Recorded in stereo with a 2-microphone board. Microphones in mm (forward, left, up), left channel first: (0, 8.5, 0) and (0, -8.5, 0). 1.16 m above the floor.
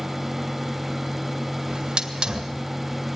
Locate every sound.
1.7 s a hiss: 70° right (ahead or behind), 2 m